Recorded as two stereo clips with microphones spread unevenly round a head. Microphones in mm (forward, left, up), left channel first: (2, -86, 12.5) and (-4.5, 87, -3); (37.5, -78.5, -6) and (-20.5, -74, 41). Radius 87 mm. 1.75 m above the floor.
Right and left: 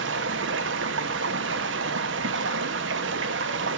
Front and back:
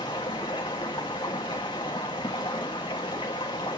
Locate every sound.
0.0 s running water: 75° left, 1.1 m